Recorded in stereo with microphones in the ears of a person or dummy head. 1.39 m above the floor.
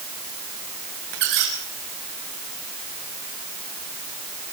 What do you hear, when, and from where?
1.1 s a squeak: 65° right (ahead or behind), 4.5 m